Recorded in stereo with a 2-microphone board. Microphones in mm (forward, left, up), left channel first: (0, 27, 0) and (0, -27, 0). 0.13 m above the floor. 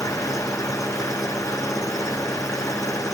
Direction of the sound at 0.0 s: 85° left.